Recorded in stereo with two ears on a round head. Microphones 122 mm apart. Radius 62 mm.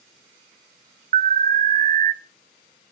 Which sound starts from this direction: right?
An alarm, at 1.1 s.